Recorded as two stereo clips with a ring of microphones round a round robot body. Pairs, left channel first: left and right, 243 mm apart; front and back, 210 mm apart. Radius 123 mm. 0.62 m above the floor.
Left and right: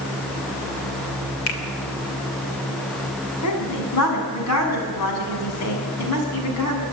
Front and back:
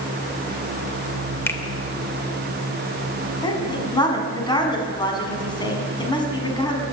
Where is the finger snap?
80° left, 2.5 m.